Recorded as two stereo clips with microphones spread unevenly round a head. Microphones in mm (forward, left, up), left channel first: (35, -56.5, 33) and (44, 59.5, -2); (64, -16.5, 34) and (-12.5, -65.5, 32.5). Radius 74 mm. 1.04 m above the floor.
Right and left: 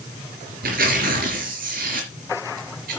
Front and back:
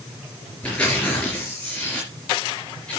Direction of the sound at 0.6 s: 115° left.